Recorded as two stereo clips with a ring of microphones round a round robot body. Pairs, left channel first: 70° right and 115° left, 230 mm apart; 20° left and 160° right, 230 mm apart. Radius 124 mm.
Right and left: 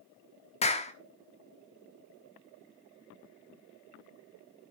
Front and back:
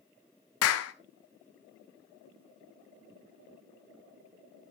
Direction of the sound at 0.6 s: 5° right.